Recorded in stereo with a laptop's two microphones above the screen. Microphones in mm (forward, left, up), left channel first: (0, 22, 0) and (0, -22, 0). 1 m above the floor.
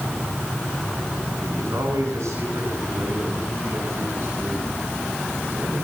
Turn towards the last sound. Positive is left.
turn(degrees=-60)  # may be behind; listen again after turning